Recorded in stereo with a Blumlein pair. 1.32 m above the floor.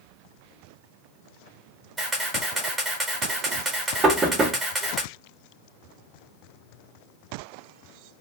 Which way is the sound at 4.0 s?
20° right.